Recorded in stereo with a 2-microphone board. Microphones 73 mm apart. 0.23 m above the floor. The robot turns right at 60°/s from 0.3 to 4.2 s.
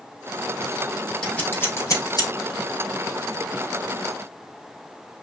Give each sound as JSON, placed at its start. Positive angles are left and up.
{"t": 1.2, "sound": "scissors", "side_deg": 10, "distance_m": 4.5}